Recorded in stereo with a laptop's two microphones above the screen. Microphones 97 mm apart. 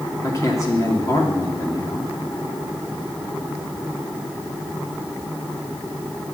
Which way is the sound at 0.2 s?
35° left (ahead or behind).